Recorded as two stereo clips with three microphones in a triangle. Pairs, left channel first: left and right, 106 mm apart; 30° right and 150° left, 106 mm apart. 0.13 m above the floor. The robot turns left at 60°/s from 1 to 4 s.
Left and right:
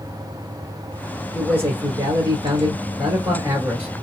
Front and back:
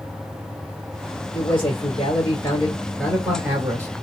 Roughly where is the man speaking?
Ahead.